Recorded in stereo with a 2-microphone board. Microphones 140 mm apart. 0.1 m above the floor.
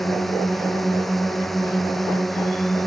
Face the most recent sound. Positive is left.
turn(degrees=0)  # may be behind; listen again after turning